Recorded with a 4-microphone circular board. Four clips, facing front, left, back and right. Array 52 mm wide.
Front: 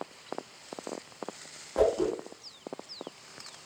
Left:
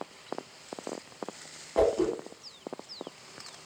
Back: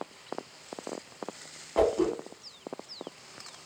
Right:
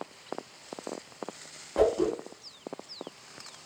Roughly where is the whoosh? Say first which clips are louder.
Even, back 1 dB; behind.